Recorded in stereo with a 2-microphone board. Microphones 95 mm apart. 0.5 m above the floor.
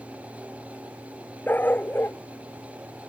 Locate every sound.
1.5 s a dog barking: 20° left (ahead or behind); by 3.1 s 25° left (ahead or behind)